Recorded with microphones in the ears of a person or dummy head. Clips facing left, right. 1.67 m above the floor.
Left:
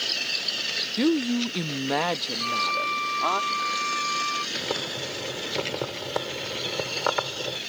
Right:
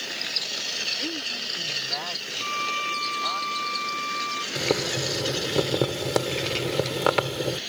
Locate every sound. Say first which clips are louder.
1.0 s a woman speaking: left 15 dB; 55° left (ahead or behind); by 3.4 s 75° left (ahead or behind)
2.4 s a violin: left 3 dB; 15° right (ahead or behind)
4.5 s boiling: right 8 dB; 45° right (ahead or behind)